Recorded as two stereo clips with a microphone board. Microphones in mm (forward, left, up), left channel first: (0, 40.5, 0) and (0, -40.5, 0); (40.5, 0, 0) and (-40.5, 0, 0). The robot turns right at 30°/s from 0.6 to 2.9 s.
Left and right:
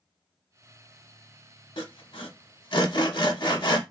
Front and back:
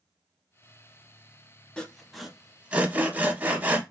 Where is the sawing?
75° left, 0.6 m; by 3.8 s 110° left, 0.6 m.